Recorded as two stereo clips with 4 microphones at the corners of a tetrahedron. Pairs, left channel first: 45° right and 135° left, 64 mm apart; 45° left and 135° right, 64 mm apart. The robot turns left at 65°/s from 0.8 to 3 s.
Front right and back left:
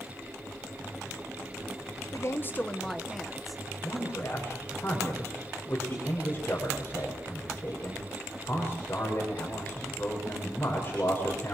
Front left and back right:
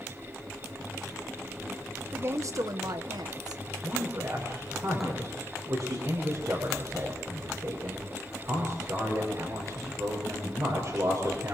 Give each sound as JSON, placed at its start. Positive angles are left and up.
{"t": 2.1, "sound": "a woman speaking", "azimuth_deg": -80, "distance_m": 1.4}
{"t": 3.8, "sound": "a man speaking", "azimuth_deg": -100, "distance_m": 7.0}